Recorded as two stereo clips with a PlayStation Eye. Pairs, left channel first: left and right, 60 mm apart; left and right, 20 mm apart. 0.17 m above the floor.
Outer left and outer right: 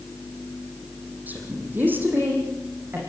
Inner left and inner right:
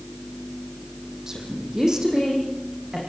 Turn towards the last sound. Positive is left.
turn(degrees=-35)  # may be behind; listen again after turning